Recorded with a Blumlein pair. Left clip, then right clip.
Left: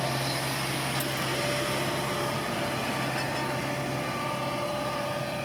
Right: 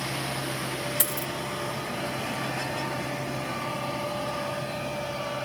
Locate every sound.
1.0 s a dropped coin: 55° right